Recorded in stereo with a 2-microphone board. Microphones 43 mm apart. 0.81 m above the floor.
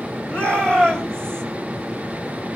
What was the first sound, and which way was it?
A shout, 25° left (ahead or behind).